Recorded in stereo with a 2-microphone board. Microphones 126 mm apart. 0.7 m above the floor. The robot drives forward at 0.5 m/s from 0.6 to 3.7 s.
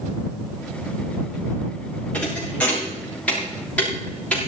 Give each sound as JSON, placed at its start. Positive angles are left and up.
{"t": 2.1, "sound": "a thud", "side_deg": 10, "distance_m": 6.5}